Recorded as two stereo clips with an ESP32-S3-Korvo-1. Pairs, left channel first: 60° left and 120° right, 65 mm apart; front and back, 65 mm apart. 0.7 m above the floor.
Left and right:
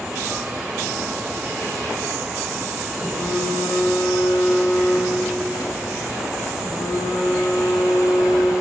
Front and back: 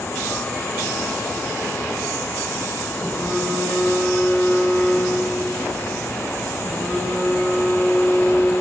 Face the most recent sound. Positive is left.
turn(degrees=75)